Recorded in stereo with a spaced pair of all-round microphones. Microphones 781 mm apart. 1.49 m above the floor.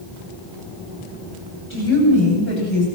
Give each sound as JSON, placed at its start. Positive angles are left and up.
{"t": 1.7, "sound": "a woman speaking", "side_deg": 15, "distance_m": 9.0}